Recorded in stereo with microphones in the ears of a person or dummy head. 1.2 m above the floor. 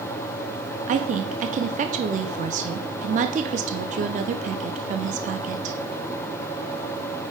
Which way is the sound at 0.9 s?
35° right (ahead or behind).